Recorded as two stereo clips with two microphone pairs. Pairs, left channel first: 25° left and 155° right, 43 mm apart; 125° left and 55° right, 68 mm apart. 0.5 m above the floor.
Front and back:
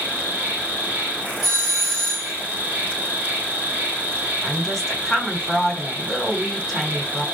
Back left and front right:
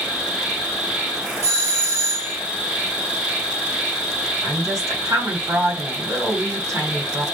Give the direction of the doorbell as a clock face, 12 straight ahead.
1 o'clock.